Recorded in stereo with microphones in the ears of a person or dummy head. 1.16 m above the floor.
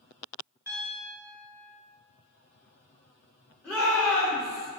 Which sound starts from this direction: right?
A piano, at 0.7 s.